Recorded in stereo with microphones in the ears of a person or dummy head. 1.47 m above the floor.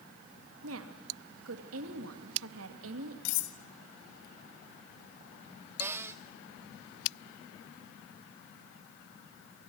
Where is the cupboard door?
10° right (ahead or behind), 0.9 m.